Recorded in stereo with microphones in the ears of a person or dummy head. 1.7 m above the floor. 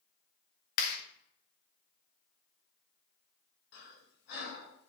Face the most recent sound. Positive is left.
turn(degrees=60)  # may be behind; listen again after turning